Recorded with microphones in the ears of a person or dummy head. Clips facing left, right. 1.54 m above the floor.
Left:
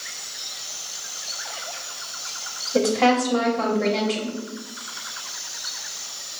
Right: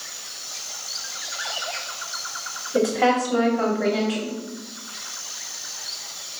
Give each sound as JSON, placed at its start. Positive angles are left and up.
{"t": 2.7, "sound": "a woman speaking", "side_deg": -5, "distance_m": 1.0}